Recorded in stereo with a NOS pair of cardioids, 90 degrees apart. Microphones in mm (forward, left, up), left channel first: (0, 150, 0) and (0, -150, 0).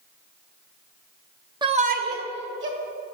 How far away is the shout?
About 0.7 m.